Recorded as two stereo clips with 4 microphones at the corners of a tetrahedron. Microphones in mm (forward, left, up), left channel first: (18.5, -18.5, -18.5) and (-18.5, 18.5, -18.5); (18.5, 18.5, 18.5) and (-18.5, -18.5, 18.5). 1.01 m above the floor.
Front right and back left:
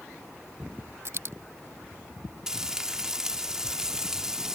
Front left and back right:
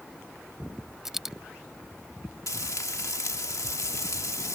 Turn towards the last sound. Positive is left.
turn(degrees=55)